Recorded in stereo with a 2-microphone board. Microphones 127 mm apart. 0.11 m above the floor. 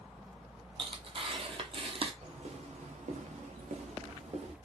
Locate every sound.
0.8 s tearing paper: 50° right (ahead or behind), 0.5 m
2.2 s footsteps: 55° right (ahead or behind), 1.0 m; by 4.5 s 50° right (ahead or behind), 1.4 m